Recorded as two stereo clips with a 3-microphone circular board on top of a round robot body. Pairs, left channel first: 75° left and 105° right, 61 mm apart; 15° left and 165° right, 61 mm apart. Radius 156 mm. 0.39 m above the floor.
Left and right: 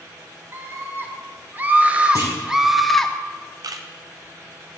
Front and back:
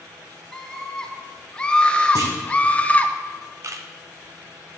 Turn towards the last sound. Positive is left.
turn(degrees=-125)